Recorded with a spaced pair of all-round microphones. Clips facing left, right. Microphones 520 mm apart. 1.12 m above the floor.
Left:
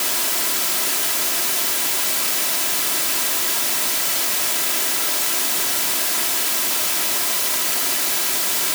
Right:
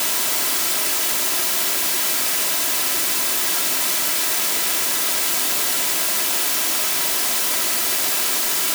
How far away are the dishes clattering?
No dishes clattering in this recording.